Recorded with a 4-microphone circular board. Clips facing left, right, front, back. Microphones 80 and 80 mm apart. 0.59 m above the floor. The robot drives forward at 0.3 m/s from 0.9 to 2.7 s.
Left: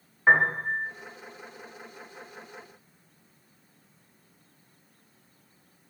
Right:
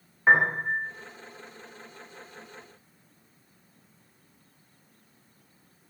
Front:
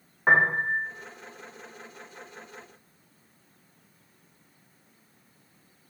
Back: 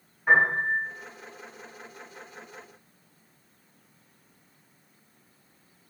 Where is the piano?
5° left, 0.5 m.